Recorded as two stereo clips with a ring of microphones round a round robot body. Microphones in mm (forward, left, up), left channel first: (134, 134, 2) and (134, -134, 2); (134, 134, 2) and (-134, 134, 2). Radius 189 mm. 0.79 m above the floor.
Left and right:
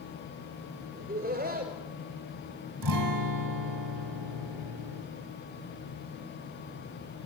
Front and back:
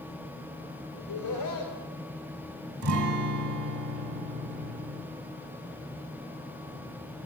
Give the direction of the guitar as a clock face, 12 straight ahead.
4 o'clock.